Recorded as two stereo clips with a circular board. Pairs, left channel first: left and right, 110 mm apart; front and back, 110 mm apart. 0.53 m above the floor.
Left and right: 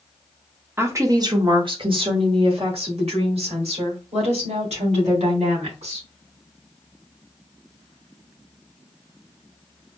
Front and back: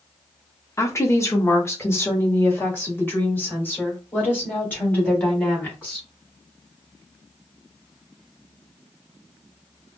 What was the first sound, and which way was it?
A woman speaking, 40° right.